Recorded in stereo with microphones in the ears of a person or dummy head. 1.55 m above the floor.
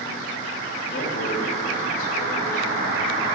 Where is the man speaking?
50° left (ahead or behind), 2.5 m.